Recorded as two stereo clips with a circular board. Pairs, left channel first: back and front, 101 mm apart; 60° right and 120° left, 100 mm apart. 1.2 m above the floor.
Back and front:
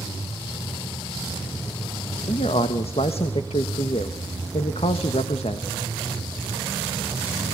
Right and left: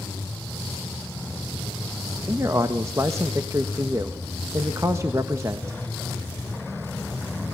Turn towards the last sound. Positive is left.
turn(degrees=180)